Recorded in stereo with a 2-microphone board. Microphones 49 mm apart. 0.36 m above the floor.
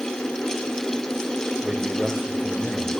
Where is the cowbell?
No cowbell in this recording.